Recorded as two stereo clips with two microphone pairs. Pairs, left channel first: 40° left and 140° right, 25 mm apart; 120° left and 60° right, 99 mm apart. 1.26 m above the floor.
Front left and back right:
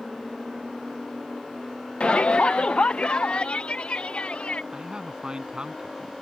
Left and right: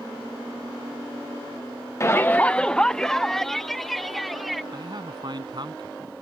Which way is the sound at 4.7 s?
100° right.